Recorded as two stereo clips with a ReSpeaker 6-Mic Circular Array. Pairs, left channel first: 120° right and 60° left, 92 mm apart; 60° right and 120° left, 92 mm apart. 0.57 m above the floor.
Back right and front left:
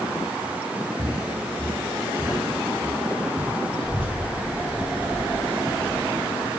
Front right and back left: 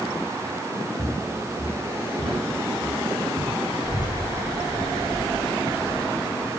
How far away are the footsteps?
About 5 m.